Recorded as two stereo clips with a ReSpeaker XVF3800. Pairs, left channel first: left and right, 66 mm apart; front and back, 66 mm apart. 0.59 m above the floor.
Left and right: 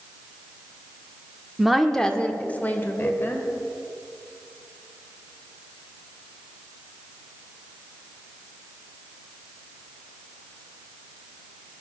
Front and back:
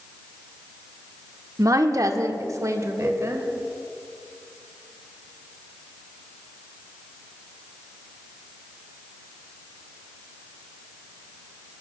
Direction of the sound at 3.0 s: 95° left.